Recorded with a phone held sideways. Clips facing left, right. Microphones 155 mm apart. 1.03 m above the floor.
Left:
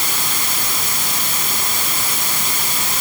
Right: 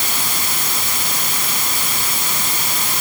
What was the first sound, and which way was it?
Only background noise.